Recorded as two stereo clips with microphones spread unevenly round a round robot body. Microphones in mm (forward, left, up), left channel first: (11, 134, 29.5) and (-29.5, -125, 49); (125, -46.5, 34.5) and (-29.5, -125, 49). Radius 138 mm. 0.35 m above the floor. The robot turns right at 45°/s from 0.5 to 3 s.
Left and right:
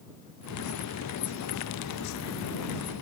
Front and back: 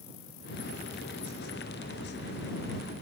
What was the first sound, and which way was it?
Only background noise.